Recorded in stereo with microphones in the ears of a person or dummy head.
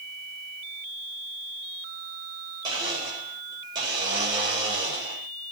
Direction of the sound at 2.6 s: 25° right (ahead or behind).